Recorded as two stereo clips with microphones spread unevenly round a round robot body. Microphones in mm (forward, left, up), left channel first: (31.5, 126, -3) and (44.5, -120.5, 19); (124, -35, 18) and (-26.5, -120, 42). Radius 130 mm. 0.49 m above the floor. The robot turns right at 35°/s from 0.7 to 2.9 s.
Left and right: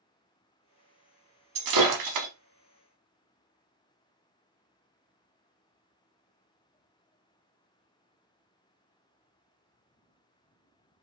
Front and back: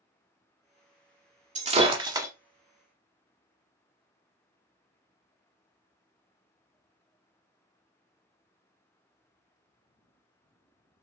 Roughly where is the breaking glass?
Right.